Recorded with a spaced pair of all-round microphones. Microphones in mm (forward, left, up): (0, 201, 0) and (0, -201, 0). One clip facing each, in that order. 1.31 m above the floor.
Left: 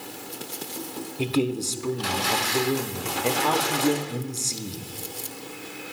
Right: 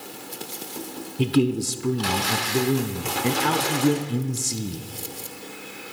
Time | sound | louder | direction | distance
1.2 | a man speaking | right 4 dB | 25° right (ahead or behind) | 0.9 m